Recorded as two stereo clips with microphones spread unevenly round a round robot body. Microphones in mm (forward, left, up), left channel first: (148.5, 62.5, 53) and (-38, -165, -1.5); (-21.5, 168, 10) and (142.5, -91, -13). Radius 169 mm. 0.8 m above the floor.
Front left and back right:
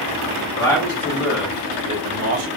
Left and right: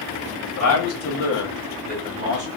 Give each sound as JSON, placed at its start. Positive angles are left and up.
{"t": 0.6, "sound": "a man speaking", "azimuth_deg": 135, "distance_m": 1.2}